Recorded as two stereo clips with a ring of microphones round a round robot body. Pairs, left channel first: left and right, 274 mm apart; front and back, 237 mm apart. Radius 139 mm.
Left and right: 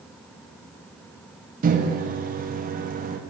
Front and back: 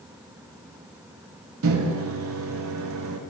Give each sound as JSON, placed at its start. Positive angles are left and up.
{"t": 1.6, "sound": "a microwave", "azimuth_deg": -150, "distance_m": 0.5}